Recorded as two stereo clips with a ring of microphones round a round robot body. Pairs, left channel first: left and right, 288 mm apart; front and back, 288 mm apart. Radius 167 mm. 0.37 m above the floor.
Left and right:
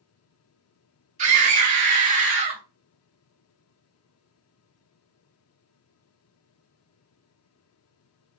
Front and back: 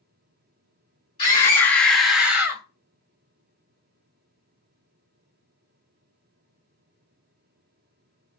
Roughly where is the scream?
Ahead right.